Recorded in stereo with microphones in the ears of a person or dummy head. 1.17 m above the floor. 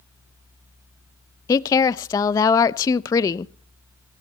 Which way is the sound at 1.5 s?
20° left (ahead or behind).